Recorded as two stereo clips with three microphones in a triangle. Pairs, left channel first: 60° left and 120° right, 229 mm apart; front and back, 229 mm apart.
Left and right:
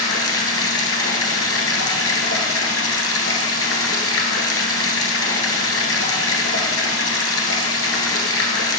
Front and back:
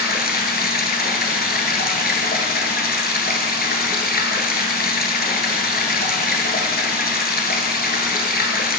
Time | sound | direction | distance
0.0 | running water | 50° left | 1.2 m